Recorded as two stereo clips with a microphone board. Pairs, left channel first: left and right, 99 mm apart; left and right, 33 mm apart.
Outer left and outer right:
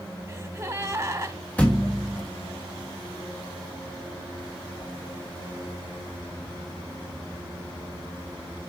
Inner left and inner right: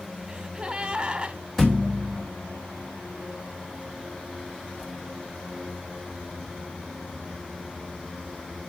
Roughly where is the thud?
Centre.